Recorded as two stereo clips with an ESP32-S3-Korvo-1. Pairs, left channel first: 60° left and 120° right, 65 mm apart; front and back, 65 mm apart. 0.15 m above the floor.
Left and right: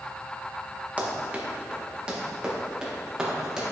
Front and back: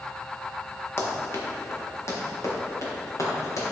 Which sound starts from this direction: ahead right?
Running footsteps, at 1.0 s.